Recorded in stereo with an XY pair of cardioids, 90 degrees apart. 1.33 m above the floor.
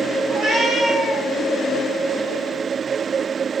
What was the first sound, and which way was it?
A cat meowing, 65° right.